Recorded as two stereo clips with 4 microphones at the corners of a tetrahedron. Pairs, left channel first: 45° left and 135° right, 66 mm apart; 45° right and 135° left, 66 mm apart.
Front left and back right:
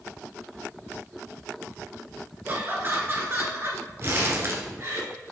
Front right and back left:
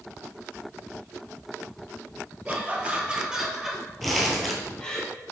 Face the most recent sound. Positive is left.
turn(degrees=-135)